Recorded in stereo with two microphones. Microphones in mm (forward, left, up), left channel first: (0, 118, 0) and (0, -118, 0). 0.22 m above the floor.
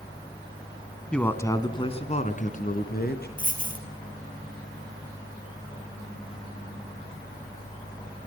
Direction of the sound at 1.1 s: 5° left (ahead or behind).